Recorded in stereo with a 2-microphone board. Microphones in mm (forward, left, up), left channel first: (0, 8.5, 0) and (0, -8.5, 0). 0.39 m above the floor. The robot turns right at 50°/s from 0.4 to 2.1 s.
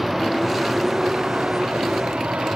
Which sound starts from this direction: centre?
A vehicle, at 0.0 s.